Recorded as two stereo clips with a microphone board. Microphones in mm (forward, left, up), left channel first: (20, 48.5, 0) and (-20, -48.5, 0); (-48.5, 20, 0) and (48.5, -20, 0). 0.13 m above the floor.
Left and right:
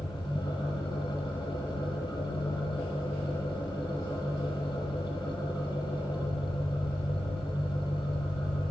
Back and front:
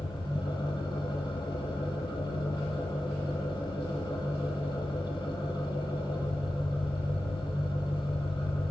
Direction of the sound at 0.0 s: 110° left.